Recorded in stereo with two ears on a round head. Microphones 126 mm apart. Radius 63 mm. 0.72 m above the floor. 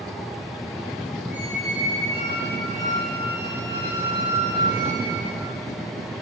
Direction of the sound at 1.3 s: 50° left (ahead or behind).